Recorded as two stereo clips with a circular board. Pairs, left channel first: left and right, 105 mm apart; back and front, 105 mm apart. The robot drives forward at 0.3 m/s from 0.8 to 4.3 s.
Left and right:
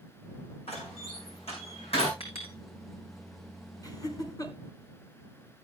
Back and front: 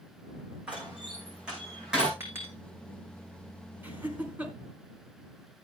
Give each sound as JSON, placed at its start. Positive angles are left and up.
{"t": 0.7, "sound": "a door slam", "azimuth_deg": 80, "distance_m": 7.0}
{"t": 2.2, "sound": "a clink", "azimuth_deg": 70, "distance_m": 5.5}
{"t": 3.8, "sound": "laughter", "azimuth_deg": 65, "distance_m": 2.0}